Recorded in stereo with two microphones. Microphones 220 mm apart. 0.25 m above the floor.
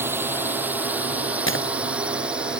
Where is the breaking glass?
60° left (ahead or behind).